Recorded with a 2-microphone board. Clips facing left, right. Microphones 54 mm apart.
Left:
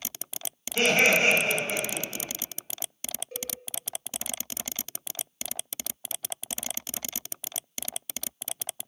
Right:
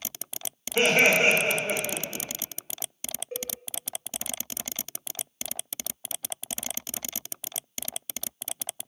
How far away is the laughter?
About 1.7 m.